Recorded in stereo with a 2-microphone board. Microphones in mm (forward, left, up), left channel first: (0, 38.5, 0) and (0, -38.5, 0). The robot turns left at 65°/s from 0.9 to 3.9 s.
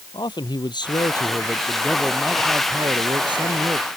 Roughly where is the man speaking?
Left.